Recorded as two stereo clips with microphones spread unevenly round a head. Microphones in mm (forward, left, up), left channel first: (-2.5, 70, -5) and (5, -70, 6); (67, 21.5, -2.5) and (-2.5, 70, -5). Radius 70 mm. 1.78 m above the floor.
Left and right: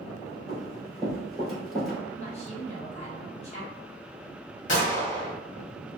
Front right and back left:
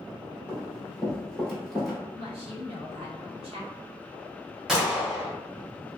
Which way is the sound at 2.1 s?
140° left.